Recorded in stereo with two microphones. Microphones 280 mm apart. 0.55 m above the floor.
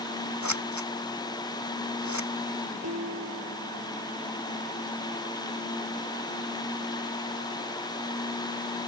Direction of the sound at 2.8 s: 65° right (ahead or behind).